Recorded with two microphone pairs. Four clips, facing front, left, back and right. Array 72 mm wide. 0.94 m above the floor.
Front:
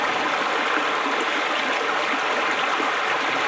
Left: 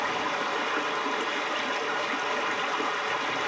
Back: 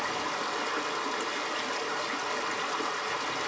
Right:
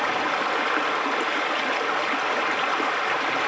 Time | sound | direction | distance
0.0 | running water | 40° right | 1.0 m